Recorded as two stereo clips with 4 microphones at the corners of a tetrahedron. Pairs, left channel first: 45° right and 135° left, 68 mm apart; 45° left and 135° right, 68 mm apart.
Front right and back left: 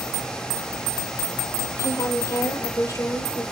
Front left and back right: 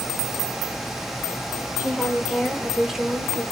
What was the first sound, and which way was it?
A woman speaking, 55° right.